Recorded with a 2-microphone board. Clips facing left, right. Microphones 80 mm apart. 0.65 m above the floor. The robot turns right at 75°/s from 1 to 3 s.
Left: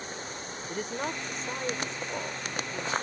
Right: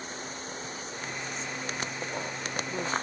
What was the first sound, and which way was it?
A woman speaking, 80° left.